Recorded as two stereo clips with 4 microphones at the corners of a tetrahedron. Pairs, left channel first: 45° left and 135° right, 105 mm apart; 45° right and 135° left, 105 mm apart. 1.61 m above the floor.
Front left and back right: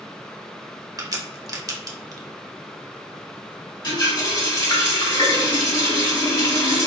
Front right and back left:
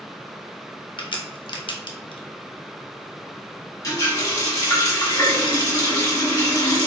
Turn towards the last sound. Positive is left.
turn(degrees=10)